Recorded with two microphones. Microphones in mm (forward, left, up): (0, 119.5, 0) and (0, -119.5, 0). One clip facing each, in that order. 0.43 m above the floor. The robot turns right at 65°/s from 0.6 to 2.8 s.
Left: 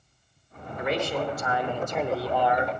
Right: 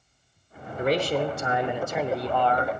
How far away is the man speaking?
About 0.9 m.